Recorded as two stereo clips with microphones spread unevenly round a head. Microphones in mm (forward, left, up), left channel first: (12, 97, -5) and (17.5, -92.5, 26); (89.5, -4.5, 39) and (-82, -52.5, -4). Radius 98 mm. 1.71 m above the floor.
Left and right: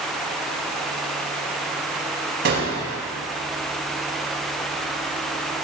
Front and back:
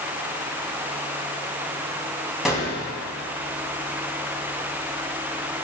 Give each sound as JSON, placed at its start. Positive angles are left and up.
{"t": 2.5, "sound": "a gunshot", "azimuth_deg": -70, "distance_m": 3.5}